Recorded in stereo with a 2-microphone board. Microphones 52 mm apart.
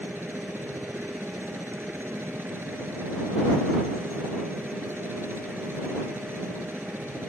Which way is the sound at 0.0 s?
45° right (ahead or behind).